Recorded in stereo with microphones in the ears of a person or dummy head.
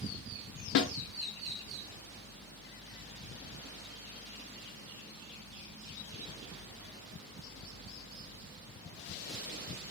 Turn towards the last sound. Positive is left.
turn(degrees=65)  # may be behind; listen again after turning